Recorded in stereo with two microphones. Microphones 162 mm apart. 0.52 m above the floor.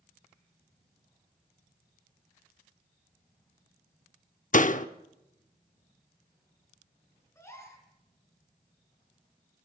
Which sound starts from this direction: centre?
A gasp, at 7.3 s.